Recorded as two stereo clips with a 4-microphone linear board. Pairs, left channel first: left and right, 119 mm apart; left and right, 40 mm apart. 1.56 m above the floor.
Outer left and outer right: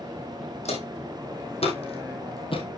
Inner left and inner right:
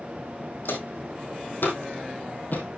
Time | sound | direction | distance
0.7 | footsteps | 65° left (ahead or behind) | 4 m